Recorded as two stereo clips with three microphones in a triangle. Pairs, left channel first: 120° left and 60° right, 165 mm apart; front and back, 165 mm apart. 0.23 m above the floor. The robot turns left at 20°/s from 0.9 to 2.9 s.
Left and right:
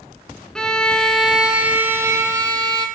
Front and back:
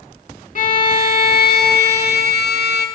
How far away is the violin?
About 0.6 m.